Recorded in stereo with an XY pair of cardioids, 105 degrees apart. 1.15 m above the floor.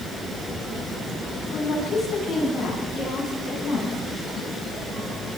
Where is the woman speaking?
65° left, 9.5 m; by 4.0 s 45° left, 10.5 m.